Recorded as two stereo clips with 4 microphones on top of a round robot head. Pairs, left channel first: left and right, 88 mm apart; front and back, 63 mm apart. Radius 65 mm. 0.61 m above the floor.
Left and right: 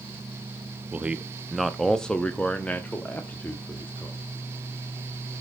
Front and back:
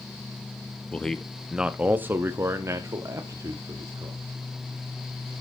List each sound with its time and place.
0.9 s a man speaking: 45° right, 0.8 m; by 4.2 s 155° left, 1.9 m